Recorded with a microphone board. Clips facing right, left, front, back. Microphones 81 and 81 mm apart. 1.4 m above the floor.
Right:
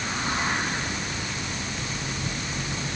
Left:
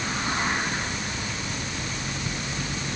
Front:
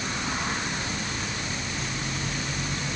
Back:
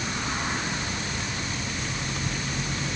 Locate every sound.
Only background noise.